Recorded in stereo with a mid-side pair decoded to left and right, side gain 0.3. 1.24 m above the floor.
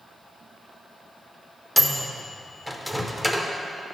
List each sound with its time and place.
1.8 s a microwave: 5° left, 0.6 m